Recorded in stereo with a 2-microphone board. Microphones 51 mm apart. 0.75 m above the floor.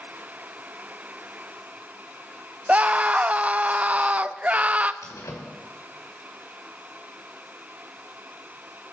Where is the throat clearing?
No throat clearing in this recording.